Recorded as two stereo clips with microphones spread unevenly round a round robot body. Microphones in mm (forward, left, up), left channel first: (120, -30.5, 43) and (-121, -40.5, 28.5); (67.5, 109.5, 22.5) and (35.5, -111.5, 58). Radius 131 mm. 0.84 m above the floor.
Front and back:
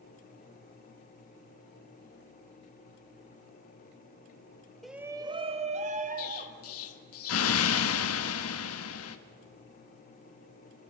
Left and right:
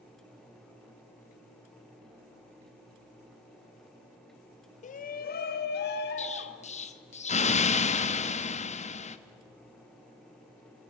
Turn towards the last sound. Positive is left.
turn(degrees=30)